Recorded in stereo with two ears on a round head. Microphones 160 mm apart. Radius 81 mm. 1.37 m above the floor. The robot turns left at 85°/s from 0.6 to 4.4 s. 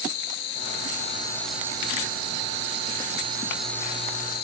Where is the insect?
75° left; by 4.4 s 115° left.